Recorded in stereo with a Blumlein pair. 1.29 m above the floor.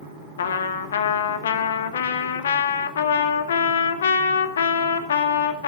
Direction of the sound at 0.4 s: 65° left.